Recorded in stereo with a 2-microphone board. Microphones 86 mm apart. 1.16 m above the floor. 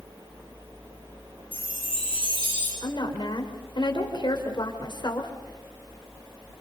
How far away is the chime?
About 8.5 m.